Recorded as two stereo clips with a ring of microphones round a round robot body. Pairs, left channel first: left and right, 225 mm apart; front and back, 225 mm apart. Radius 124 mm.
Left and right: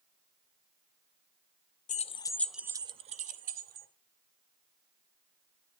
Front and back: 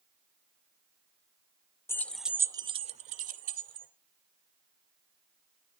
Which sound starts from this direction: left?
Keys jangling, at 1.9 s.